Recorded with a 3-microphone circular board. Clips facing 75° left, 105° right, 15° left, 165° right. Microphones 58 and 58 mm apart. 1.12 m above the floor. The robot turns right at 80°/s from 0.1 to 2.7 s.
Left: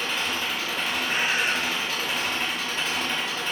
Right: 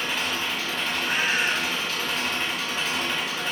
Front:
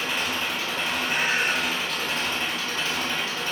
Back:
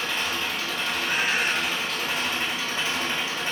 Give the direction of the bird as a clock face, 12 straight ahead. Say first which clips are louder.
Right 1 dB, even; 4 o'clock.